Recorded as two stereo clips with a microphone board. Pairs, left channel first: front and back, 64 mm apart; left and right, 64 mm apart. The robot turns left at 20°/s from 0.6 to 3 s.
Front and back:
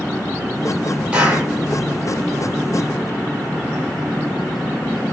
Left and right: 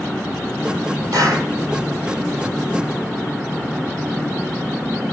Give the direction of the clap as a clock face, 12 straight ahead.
4 o'clock.